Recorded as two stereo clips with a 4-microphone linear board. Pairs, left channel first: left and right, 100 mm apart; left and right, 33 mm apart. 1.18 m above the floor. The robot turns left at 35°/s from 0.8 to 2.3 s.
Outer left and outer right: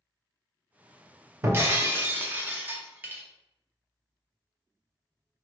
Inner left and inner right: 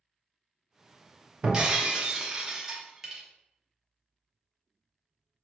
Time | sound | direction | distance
1.4 | breaking glass | 25° right (ahead or behind) | 0.6 m